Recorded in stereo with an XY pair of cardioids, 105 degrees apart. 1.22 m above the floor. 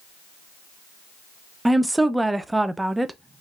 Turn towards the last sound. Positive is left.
turn(degrees=-10)